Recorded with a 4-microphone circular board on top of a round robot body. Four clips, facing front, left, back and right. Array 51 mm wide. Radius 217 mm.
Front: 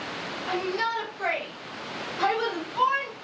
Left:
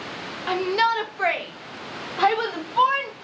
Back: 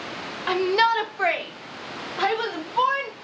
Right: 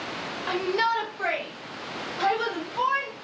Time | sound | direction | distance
0.5 | a shout | 160° left | 1.2 m